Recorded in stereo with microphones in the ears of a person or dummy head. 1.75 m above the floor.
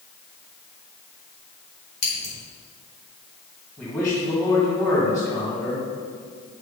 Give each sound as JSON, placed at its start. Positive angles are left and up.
{"t": 2.0, "sound": "scissors", "side_deg": 75, "distance_m": 3.0}
{"t": 3.8, "sound": "a man speaking", "side_deg": 15, "distance_m": 2.5}